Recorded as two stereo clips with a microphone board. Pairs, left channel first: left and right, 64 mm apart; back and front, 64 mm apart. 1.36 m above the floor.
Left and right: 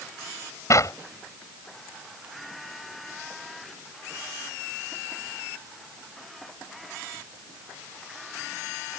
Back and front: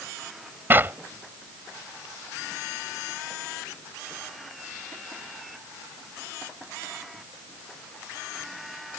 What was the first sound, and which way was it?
A clap, 55° left.